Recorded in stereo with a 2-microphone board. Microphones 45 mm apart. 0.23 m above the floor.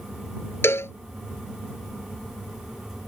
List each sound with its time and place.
0.6 s a cowbell: 70° left (ahead or behind)